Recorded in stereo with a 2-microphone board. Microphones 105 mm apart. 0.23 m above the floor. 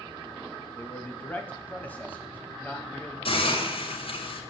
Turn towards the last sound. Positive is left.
turn(degrees=60)  # may be behind; listen again after turning